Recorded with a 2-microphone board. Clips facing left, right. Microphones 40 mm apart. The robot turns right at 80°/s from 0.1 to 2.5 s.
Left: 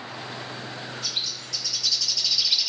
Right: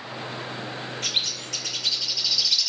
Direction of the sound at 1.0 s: 110° right.